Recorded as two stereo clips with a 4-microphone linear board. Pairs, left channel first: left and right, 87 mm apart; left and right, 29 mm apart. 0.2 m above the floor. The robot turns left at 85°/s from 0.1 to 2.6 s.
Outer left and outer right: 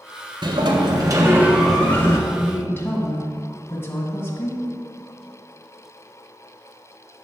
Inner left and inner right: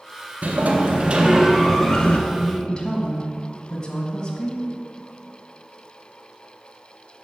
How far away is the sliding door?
About 1.3 m.